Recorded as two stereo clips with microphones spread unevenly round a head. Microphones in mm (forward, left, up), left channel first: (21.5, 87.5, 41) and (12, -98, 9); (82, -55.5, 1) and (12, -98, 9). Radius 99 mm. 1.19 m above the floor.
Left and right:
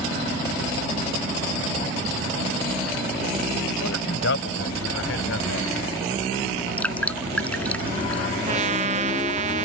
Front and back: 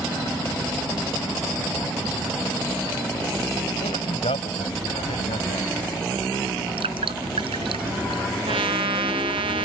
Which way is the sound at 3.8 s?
70° left.